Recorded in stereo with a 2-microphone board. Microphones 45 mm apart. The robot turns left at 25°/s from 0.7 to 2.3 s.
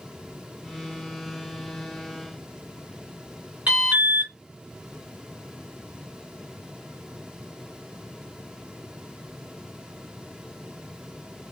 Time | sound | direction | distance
3.7 | an alarm | 30° right (ahead or behind) | 2 m